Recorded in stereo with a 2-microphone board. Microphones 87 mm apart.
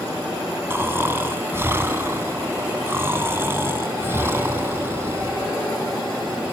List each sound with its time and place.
0.7 s snoring: 25° right (ahead or behind), 3 m